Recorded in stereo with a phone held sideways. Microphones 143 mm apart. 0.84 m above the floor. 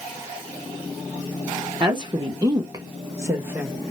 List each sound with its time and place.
1.8 s a woman speaking: 30° right (ahead or behind), 0.7 m; by 3.7 s 15° right (ahead or behind), 1.0 m